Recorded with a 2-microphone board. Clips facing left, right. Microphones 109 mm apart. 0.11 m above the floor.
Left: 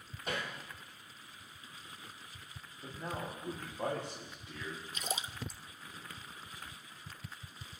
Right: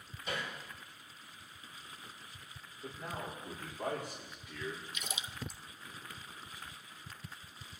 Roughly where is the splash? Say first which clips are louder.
Left 3 dB; left.